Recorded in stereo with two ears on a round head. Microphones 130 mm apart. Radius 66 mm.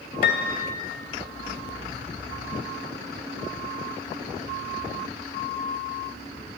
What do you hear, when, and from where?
0.2 s a piano: 65° left (ahead or behind), 2.5 m